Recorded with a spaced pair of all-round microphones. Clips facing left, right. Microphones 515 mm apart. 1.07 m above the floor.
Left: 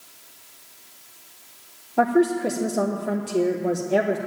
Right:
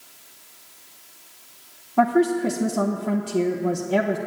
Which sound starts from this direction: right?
A woman speaking, at 2.0 s.